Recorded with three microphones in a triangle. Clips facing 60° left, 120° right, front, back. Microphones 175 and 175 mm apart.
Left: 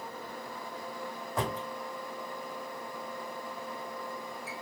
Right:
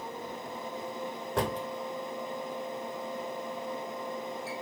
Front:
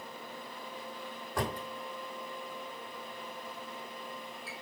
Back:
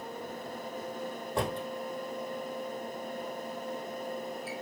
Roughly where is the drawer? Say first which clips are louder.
Right 3 dB, back 3 dB; behind right.